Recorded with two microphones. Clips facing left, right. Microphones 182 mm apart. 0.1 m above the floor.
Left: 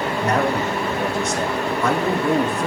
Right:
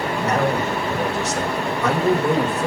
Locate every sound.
0.2 s a man speaking: 30° right (ahead or behind), 4.5 m